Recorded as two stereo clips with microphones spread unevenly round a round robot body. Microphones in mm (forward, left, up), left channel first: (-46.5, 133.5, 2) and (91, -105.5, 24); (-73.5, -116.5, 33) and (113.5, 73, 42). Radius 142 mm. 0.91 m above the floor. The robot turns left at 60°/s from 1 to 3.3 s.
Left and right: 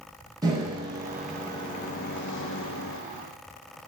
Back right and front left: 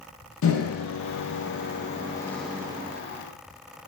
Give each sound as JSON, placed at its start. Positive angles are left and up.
{"t": 0.4, "sound": "a microwave", "azimuth_deg": -135, "distance_m": 0.6}